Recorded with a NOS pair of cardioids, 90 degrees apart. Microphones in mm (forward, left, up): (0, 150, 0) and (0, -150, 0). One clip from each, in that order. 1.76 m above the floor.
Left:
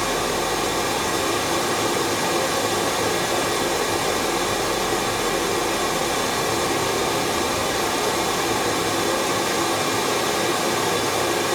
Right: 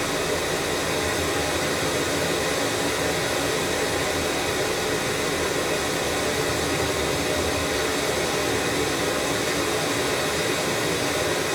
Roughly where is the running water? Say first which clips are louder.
Left 2 dB; ahead left.